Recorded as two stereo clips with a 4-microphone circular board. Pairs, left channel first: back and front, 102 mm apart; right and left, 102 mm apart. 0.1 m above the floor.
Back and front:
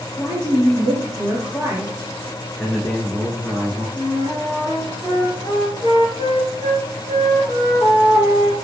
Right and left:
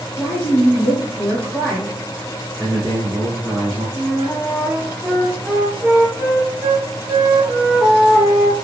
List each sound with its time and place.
0.2 s a woman speaking: 25° right, 1.5 m
2.6 s a man speaking: 95° left, 1.1 m
4.0 s a flute: 25° left, 0.9 m